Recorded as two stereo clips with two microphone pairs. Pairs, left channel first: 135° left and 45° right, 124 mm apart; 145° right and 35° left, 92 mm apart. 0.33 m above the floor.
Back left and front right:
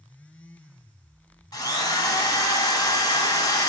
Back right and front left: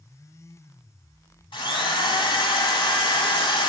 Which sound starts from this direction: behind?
A drill, at 1.5 s.